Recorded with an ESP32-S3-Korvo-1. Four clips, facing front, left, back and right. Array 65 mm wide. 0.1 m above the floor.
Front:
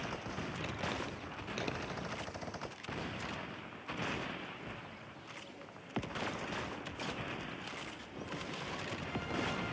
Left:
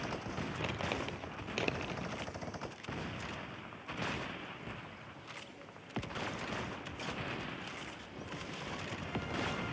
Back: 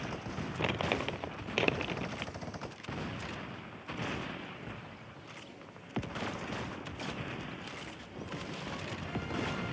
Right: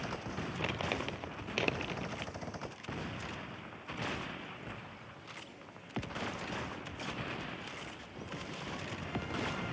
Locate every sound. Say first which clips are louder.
0.6 s crumpling: right 2 dB, back 9 dB; straight behind, 0.9 m